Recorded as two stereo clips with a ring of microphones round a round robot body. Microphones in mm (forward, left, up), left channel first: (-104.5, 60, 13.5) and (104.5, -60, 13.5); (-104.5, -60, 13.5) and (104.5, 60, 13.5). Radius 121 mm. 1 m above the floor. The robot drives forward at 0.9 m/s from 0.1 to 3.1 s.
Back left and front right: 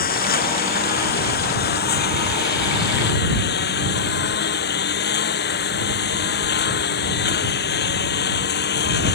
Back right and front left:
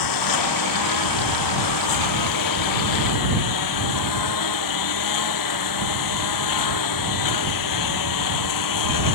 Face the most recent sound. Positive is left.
turn(degrees=-160)